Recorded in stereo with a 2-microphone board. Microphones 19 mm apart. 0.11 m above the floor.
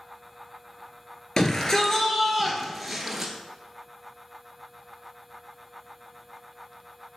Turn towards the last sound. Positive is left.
turn(degrees=-10)  # may be behind; listen again after turning